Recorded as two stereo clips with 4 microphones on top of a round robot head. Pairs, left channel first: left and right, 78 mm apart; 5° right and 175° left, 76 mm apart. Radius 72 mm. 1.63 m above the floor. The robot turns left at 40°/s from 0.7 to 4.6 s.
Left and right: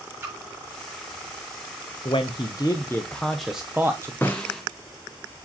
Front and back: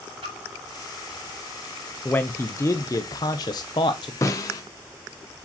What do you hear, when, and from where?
0.2 s a splash: 150° right, 2.5 m
2.0 s a man speaking: 55° left, 0.5 m; by 4.1 s 25° right, 0.5 m
4.2 s a snare drum: 20° left, 0.8 m; by 4.6 s 5° left, 0.8 m